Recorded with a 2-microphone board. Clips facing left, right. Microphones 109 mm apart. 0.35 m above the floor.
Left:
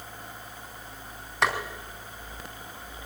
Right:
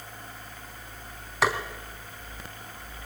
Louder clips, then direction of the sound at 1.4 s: Right 1 dB; 5° right (ahead or behind).